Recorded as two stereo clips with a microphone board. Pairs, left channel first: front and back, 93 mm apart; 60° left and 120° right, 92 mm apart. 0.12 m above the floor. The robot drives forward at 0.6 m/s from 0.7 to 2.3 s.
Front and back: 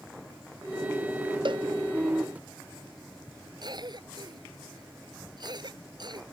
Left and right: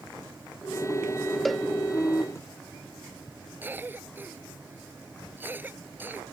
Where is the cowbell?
150° left.